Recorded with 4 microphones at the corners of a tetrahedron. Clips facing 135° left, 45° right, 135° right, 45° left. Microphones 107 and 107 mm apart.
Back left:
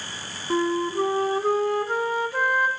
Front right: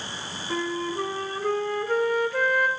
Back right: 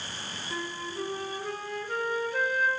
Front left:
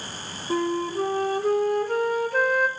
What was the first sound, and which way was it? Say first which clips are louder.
A flute: back left 5 dB, front left 13 dB; 70° left.